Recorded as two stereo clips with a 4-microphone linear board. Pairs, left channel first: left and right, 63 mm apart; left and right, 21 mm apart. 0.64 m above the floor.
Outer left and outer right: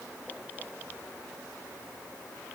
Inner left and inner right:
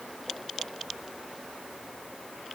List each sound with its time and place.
Only background noise.